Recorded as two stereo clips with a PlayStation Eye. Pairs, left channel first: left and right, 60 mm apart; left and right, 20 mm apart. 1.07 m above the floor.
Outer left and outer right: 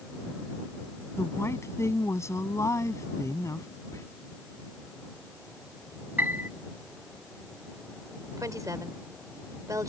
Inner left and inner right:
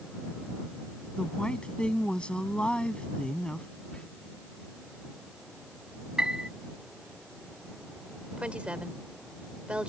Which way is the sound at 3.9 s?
60° left (ahead or behind).